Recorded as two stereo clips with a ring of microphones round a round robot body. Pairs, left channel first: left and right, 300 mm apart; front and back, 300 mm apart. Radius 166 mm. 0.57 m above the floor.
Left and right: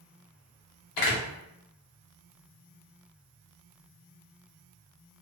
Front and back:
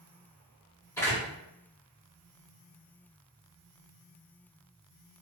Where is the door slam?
80° left, 0.9 m.